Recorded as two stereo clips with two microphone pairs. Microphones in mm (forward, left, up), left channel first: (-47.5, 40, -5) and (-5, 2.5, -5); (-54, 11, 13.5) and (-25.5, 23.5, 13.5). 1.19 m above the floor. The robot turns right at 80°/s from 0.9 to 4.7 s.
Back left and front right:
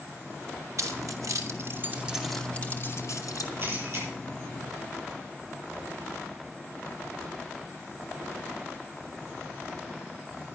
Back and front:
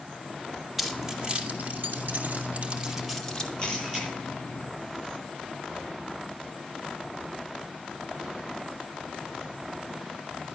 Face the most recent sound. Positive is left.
turn(degrees=-5)